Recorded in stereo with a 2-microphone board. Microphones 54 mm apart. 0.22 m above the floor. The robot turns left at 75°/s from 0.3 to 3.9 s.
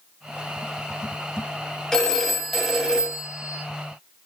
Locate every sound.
1.9 s a phone ringing: 15° left (ahead or behind), 0.6 m; by 3.6 s 20° right (ahead or behind), 0.6 m